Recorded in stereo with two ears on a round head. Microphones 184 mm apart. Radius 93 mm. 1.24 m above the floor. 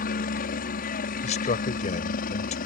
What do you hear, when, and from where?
0.0 s a helicopter: 45° left (ahead or behind)
1.2 s a man speaking: 35° left (ahead or behind)